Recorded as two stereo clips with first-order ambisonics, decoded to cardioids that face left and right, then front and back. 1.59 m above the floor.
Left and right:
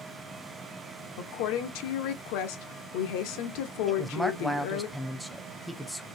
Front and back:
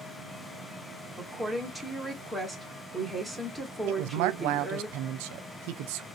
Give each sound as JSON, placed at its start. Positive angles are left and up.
{"t": 1.2, "sound": "a woman speaking", "azimuth_deg": 90, "distance_m": 1.2}
{"t": 3.9, "sound": "a woman speaking", "azimuth_deg": -175, "distance_m": 0.6}